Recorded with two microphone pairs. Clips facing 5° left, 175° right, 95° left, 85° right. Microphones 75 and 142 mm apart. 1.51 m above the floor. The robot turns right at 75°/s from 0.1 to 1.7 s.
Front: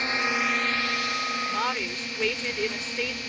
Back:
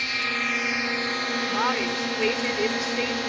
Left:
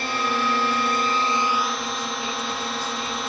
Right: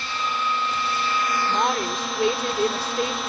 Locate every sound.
0.0 s a drone: 65° left; by 3.3 s 175° right
1.5 s a woman speaking: 115° right; by 3.2 s 95° right